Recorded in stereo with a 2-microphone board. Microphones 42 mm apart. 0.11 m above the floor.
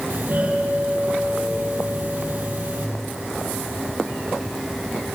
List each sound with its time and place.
0.1 s a doorbell: 50° right (ahead or behind), 5 m